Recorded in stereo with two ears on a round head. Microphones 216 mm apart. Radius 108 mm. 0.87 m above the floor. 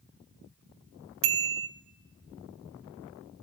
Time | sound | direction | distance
1.2 | a bicycle bell | 55° right (ahead or behind) | 3 m